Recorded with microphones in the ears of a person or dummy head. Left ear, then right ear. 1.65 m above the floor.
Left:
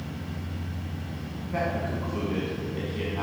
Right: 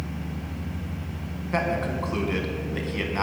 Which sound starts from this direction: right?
A man speaking, at 1.5 s.